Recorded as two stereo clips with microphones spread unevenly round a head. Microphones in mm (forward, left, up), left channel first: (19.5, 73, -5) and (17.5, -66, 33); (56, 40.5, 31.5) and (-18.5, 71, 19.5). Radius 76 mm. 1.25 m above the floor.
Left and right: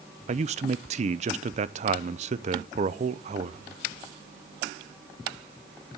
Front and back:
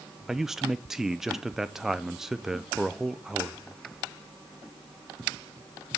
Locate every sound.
0.3 s a man speaking: 130° right, 0.6 m